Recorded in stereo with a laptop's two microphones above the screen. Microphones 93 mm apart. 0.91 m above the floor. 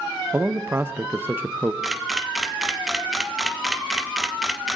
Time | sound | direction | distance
0.3 | a man speaking | 25° right (ahead or behind) | 0.7 m
1.8 | a camera shutter | 5° right (ahead or behind) | 0.6 m